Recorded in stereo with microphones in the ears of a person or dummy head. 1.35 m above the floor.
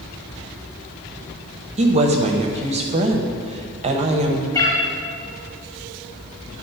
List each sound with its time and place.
1.8 s a woman speaking: 30° right (ahead or behind), 0.8 m
4.5 s a cat meowing: 15° left (ahead or behind), 1.6 m